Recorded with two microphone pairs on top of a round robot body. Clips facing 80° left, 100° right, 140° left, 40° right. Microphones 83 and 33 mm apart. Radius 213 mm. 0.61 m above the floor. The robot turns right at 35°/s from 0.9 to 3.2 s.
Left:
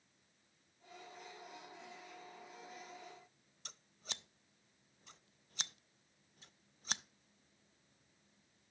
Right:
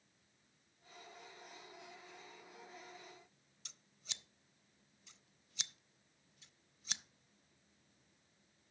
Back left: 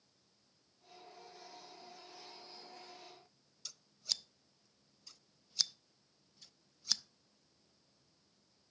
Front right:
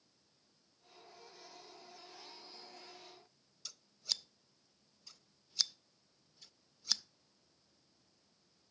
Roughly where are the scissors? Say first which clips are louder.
Left 6 dB, even; ahead left.